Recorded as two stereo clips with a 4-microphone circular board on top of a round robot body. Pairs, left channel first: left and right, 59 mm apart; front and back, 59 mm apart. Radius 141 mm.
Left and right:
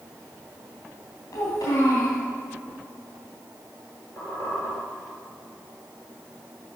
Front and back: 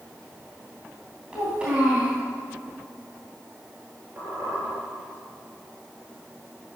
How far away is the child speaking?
About 3 m.